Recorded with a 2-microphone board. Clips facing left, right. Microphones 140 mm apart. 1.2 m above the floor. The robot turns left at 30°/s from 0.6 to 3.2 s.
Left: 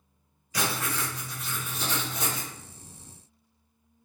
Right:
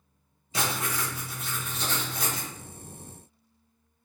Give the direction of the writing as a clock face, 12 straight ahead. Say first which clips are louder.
Even; 5 o'clock.